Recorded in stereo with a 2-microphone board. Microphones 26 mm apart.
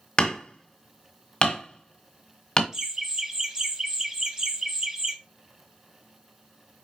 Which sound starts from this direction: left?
Hammering, at 0.2 s.